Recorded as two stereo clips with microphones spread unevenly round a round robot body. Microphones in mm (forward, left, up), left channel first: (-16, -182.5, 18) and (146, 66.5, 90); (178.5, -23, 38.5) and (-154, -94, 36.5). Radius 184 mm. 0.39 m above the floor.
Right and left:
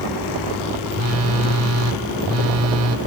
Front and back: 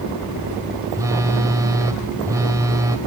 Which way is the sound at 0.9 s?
110° left.